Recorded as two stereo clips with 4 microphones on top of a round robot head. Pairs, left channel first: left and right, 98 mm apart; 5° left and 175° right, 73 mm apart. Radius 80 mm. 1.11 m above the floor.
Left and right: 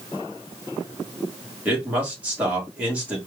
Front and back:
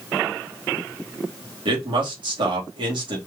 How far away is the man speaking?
About 1.9 m.